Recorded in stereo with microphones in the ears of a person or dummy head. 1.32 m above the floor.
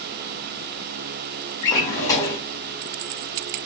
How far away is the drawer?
About 0.8 m.